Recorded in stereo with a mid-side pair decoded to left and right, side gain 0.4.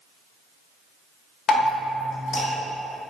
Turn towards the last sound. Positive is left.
turn(degrees=70)